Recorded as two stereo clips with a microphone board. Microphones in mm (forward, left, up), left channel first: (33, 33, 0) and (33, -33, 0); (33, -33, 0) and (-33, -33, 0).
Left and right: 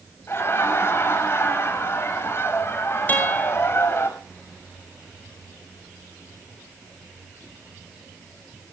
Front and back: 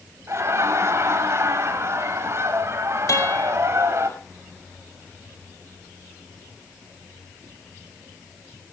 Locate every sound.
0.3 s laughter: 140° left, 6.5 m
3.1 s a guitar: 30° left, 6 m